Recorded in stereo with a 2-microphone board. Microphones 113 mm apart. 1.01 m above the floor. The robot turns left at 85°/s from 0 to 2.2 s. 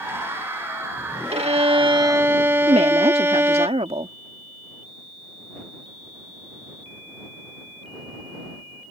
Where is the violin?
80° right; by 3.7 s 155° right.